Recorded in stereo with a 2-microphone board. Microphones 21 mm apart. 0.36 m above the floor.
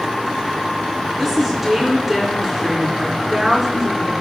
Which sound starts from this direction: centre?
A woman speaking, at 1.2 s.